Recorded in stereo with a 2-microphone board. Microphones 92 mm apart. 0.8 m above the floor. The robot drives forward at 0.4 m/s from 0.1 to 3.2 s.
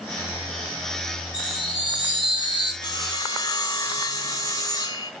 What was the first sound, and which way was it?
A chime, 45° right (ahead or behind).